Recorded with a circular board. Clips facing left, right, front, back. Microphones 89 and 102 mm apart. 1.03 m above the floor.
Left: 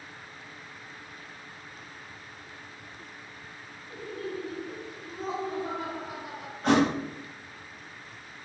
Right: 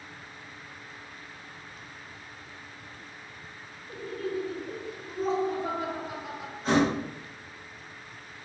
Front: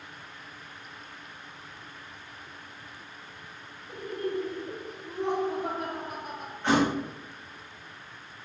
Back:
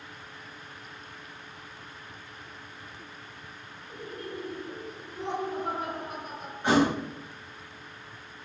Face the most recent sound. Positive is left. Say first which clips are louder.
# left 1 dB, back 1 dB
turn(degrees=105)